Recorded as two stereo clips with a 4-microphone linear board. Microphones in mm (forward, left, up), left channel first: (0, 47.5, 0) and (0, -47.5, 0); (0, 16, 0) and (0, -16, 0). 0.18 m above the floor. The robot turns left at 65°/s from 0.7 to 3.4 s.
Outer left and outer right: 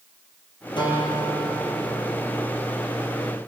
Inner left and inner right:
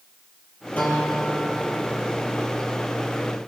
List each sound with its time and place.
0.8 s a guitar: 60° left, 4.5 m; by 2.4 s 50° right, 4.5 m